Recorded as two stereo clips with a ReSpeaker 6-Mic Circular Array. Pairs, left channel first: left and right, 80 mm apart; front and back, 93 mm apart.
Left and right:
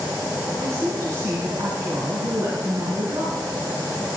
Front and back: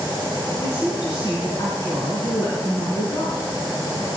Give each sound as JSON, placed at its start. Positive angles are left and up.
{"t": 0.6, "sound": "a woman speaking", "azimuth_deg": -50, "distance_m": 3.5}